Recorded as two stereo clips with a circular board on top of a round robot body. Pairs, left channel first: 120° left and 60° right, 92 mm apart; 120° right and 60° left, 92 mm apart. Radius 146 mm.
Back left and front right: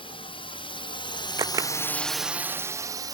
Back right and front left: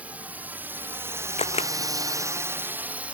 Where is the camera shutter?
110° right.